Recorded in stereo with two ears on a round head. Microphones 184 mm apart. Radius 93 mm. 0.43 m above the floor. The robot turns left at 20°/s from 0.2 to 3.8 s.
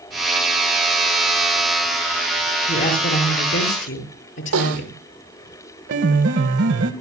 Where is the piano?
60° right (ahead or behind), 1.6 m.